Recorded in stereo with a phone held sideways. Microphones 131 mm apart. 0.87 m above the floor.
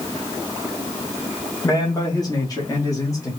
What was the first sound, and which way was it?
A man speaking, 25° left (ahead or behind).